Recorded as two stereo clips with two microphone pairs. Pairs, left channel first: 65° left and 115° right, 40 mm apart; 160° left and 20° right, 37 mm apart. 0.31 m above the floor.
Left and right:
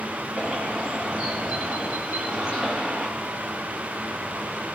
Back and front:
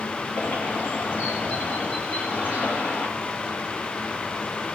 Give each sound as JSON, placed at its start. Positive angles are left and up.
{"t": 0.3, "sound": "a bird", "azimuth_deg": 175, "distance_m": 3.0}